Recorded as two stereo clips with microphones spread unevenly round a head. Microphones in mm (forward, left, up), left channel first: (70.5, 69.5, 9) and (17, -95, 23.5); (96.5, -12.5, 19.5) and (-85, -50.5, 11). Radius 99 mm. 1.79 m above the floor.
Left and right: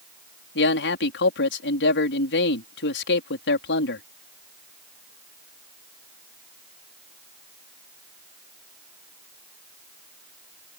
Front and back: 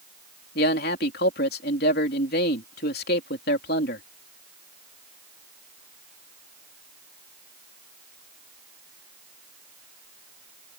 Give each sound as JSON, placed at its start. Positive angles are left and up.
{"t": 0.6, "sound": "a man speaking", "azimuth_deg": 55}